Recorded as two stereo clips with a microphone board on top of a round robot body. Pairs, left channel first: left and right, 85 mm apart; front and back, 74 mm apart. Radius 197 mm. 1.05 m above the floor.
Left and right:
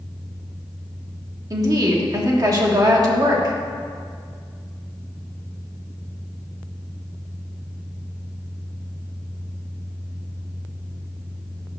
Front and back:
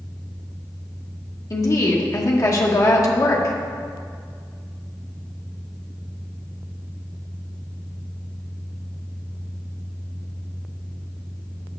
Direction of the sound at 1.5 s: 45° right.